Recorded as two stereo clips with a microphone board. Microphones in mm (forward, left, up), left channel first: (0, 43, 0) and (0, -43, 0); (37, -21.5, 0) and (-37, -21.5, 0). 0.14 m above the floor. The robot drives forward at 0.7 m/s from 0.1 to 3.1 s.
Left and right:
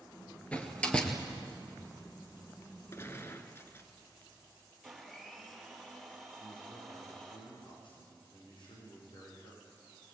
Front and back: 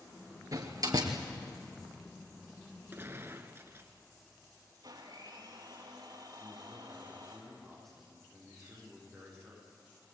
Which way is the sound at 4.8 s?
Straight behind.